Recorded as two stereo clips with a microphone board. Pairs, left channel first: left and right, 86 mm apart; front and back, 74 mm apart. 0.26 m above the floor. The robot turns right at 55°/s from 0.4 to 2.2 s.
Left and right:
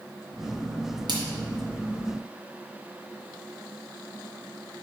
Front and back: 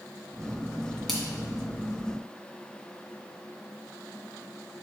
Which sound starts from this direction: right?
A splash, at 1.1 s.